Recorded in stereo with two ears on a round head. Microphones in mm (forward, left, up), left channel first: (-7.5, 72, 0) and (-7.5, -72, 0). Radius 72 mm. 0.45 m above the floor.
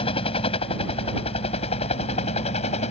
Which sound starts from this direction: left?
A helicopter, at 0.0 s.